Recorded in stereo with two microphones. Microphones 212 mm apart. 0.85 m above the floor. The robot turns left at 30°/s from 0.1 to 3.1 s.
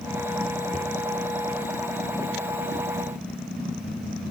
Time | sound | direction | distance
0.7 | a cupboard door | 40° right (ahead or behind) | 0.9 m